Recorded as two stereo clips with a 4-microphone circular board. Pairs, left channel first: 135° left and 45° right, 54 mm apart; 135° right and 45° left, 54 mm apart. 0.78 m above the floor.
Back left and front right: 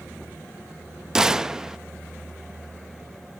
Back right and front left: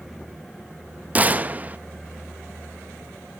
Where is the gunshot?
20° left, 0.5 m.